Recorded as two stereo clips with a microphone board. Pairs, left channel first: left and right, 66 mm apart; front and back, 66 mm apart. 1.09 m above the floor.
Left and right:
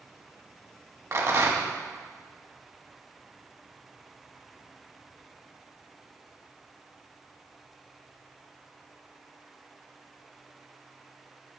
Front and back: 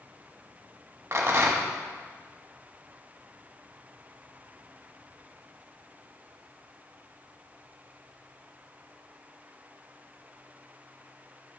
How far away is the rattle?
About 1.2 m.